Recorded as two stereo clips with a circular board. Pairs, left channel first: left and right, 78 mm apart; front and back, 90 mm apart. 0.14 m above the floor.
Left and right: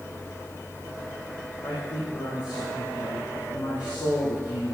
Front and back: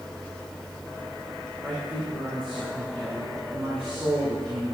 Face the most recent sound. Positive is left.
turn(degrees=110)